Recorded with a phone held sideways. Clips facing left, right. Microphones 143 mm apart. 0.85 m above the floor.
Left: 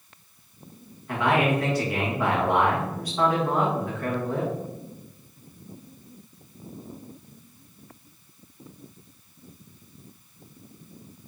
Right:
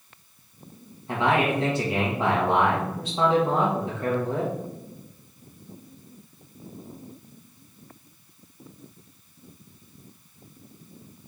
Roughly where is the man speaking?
Right.